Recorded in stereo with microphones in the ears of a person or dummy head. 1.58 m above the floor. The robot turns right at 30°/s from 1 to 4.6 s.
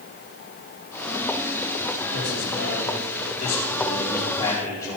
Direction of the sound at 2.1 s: 95° left.